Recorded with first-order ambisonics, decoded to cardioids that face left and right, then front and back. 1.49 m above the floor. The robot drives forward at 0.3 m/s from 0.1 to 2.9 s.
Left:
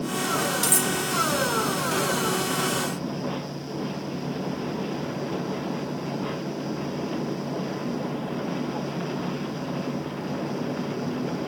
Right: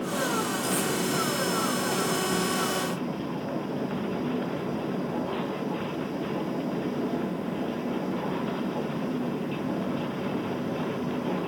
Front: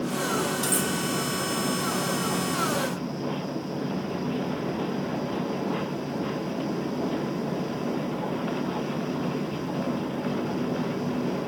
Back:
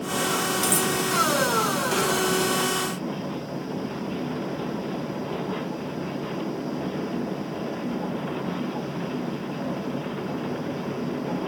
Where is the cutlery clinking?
110° left, 1.6 m.